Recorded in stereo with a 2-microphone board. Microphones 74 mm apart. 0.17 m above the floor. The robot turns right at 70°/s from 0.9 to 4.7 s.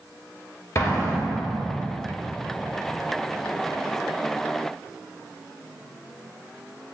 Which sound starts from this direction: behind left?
An explosion, at 0.8 s.